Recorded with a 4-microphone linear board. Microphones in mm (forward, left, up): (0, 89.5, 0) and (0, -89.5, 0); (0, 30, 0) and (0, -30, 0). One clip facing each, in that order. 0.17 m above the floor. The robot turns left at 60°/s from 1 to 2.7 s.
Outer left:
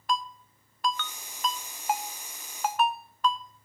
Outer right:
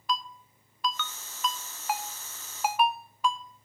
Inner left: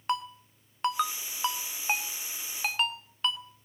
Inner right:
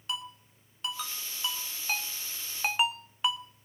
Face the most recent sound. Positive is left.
turn(degrees=-10)  # may be behind; listen again after turning